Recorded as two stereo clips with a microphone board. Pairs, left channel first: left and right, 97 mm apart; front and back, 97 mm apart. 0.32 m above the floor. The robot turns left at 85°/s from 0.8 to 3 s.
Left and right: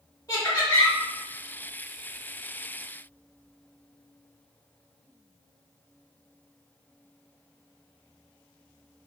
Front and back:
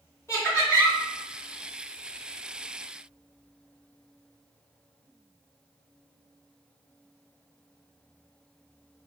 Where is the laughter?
50° left, 1.6 m; by 1.0 s 35° left, 1.6 m.